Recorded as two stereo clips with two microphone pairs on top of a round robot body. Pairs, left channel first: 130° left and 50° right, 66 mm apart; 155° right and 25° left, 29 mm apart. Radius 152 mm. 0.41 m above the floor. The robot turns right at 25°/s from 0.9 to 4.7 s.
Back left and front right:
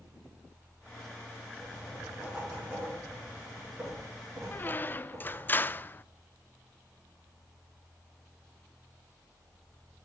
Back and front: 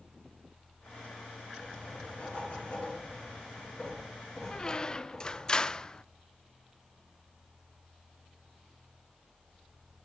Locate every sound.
1.6 s writing: 145° right, 6 m; by 5.5 s 70° right, 6 m
4.5 s a squeak: 165° left, 0.5 m; by 6.0 s 170° left, 0.5 m